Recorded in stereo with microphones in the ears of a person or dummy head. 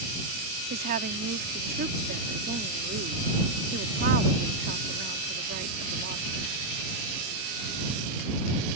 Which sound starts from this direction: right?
A woman speaking, at 0.7 s.